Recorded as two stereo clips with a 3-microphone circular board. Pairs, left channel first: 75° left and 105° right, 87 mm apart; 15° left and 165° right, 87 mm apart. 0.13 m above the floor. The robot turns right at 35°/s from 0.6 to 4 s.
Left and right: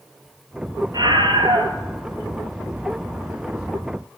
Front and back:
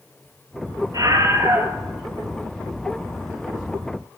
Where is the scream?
130° right, 3 m; by 1.7 s 100° right, 3 m.